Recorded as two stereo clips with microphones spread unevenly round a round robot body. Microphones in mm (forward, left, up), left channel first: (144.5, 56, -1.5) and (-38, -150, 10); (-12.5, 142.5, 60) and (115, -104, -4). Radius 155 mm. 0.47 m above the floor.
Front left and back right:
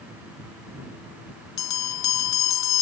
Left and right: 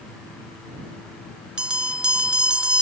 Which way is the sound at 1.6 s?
25° left.